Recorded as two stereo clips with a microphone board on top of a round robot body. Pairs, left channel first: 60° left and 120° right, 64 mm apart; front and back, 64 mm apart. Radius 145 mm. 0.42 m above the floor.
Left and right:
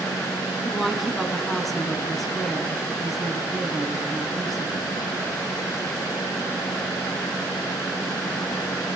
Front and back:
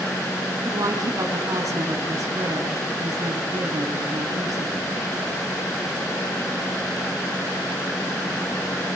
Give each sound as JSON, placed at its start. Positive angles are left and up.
{"t": 0.7, "sound": "a woman speaking", "azimuth_deg": 150, "distance_m": 5.0}